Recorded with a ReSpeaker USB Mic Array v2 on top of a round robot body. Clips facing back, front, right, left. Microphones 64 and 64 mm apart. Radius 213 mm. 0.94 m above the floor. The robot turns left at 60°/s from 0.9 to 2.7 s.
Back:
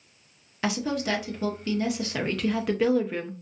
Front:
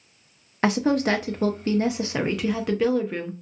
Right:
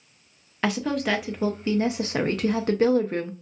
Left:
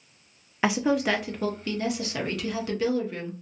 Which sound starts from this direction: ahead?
A woman speaking, at 0.6 s.